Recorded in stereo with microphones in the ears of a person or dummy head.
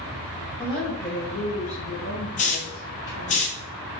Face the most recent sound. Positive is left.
turn(degrees=35)  # may be behind; listen again after turning